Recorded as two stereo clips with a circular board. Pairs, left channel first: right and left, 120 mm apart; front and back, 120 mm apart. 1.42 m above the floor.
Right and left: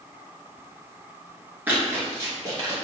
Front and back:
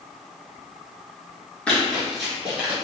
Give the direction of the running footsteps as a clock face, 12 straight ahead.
10 o'clock.